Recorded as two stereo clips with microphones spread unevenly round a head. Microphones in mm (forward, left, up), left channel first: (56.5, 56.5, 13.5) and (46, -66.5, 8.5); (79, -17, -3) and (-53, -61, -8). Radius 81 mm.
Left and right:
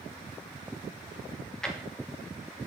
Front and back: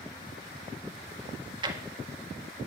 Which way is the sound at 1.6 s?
165° left.